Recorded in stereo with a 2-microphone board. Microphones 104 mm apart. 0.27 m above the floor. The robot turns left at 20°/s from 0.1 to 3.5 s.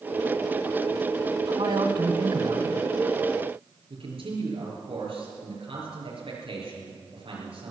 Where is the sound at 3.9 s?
70° right (ahead or behind), 5.5 m.